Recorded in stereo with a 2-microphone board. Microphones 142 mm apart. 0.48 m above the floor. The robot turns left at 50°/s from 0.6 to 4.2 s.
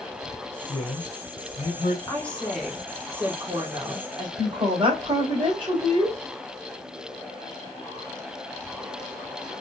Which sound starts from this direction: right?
A woman speaking, at 4.4 s.